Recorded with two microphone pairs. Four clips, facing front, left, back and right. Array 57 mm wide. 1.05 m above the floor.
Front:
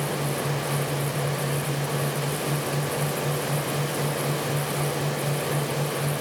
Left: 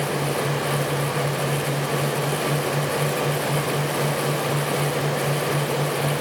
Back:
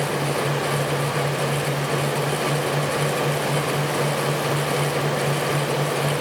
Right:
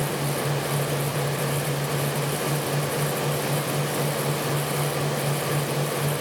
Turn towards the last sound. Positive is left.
No sound to turn to.